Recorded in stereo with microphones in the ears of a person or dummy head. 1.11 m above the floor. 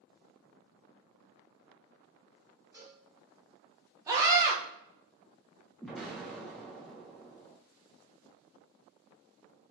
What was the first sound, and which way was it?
A cowbell, 20° right (ahead or behind).